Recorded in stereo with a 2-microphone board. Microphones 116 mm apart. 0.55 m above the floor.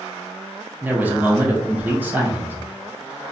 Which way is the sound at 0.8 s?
15° right (ahead or behind).